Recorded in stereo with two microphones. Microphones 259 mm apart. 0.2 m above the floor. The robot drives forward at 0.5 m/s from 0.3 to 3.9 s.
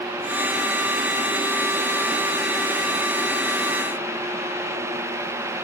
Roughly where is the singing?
I don't hear singing.